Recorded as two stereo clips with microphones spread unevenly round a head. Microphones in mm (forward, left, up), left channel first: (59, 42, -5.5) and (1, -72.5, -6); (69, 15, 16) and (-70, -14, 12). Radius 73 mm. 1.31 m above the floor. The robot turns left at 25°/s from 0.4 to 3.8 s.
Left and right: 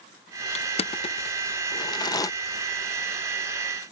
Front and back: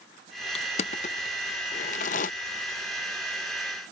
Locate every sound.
0.6 s crushing: 50° left; by 2.3 s 5° left